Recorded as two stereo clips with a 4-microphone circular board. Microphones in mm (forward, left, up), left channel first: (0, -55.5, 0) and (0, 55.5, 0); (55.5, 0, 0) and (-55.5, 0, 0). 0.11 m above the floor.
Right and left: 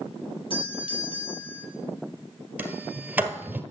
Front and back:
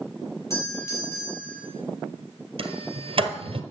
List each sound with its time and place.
0.5 s a doorbell: 60° right, 4 m
2.6 s a sliding door: 165° left, 1.4 m